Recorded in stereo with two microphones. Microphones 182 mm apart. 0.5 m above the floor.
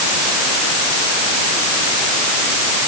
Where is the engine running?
I don't hear an engine running.